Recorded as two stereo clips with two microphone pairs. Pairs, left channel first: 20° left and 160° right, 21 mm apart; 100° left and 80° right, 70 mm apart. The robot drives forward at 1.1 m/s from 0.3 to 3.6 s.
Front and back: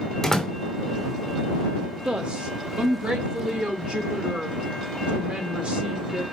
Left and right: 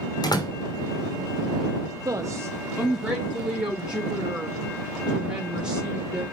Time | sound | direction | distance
0.2 | a door slam | 95° left | 3 m
2.0 | a woman speaking | 115° right | 0.9 m